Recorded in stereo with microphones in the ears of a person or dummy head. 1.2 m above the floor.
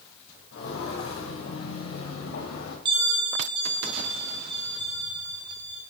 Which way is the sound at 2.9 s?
20° right (ahead or behind).